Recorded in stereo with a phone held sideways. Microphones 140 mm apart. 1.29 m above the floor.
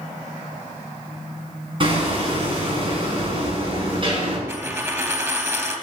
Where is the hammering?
40° right (ahead or behind), 5.5 m.